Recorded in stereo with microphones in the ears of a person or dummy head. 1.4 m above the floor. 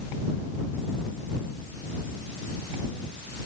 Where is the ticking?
No ticking in this recording.